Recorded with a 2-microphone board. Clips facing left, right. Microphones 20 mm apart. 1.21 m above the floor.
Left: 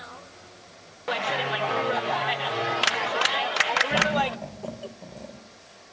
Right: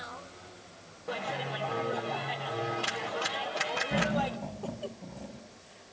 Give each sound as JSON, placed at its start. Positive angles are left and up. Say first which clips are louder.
{"t": 1.1, "sound": "a clap", "louder": "left 8 dB", "side_deg": 85, "distance_m": 1.1}
{"t": 3.9, "sound": "laughter", "louder": "left 6 dB", "side_deg": 70, "distance_m": 5.5}